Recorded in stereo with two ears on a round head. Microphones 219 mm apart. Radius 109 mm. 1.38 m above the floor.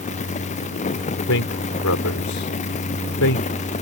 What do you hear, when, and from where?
1.3 s a man speaking: 65° left (ahead or behind)